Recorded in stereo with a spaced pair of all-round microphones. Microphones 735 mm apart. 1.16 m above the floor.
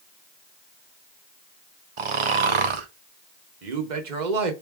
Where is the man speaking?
75° right (ahead or behind), 1.0 m.